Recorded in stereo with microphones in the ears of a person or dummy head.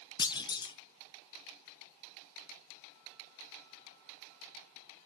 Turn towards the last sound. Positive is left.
turn(degrees=25)  # may be behind; listen again after turning